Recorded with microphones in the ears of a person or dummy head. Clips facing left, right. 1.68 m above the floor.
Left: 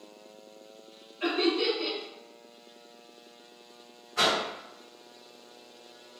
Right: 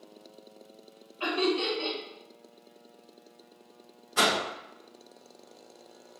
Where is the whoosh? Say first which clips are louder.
Right 1 dB; 50° right (ahead or behind), 0.5 m.